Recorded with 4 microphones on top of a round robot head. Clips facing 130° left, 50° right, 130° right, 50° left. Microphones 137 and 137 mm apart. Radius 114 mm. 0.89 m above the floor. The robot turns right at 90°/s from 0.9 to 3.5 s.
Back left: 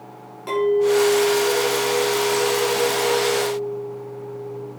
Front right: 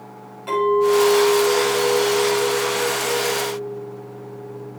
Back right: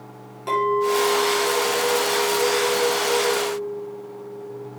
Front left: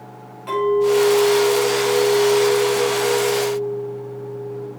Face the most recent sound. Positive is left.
turn(degrees=50)